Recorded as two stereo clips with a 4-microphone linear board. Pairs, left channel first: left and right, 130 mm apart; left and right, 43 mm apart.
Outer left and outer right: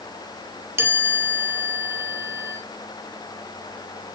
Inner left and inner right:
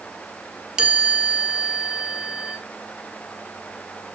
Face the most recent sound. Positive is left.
turn(degrees=-20)  # may be behind; listen again after turning